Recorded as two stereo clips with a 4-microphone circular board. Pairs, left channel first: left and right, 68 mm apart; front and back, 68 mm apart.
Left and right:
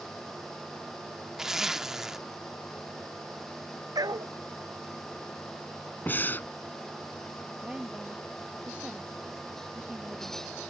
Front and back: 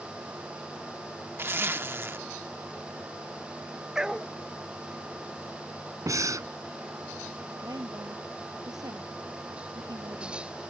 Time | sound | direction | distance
1.4 | a zipper | 170° right | ?
4.0 | a dog barking | 100° right | ?
6.1 | breathing | 150° left | ?
7.6 | a woman speaking | 165° right | ?